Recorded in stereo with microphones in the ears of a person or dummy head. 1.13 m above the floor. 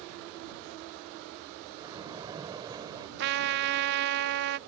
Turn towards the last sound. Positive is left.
turn(degrees=-55)  # may be behind; listen again after turning